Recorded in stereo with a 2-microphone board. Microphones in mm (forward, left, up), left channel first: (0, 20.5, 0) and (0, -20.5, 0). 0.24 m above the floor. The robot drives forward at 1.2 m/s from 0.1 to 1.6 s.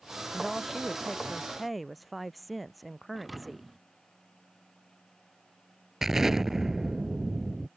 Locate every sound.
0.3 s a woman speaking: 5° right (ahead or behind); by 3.8 s centre (ahead or behind)
3.1 s a thud: 5° right (ahead or behind)
6.0 s an explosion: 15° right (ahead or behind)